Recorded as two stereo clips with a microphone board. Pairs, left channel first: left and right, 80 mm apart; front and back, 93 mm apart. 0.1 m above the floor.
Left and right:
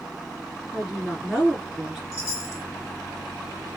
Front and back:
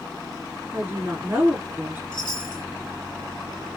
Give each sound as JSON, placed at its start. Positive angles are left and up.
{"t": 0.7, "sound": "a woman speaking", "azimuth_deg": -165, "distance_m": 1.6}
{"t": 2.1, "sound": "a chime", "azimuth_deg": 35, "distance_m": 1.1}